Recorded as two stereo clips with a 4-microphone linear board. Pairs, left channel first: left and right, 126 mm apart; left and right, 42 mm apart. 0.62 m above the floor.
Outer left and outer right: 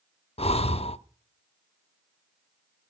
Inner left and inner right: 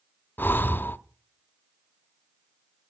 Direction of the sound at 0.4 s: 55° left (ahead or behind).